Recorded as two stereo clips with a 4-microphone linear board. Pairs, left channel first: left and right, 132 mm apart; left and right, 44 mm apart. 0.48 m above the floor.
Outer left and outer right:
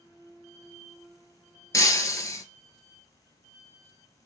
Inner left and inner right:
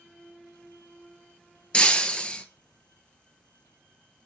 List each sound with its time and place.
1.7 s breaking glass: 25° left (ahead or behind), 0.8 m